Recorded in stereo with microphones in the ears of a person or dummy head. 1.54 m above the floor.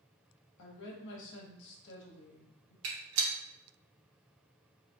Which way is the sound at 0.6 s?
65° left (ahead or behind).